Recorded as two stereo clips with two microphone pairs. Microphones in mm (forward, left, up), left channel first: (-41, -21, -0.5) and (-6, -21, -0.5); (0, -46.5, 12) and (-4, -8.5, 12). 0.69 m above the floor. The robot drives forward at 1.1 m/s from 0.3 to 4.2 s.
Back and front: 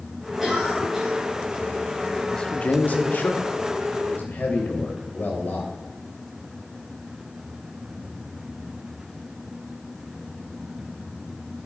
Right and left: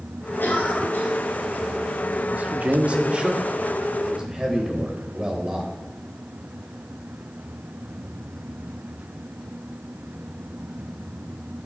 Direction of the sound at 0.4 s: 80° right.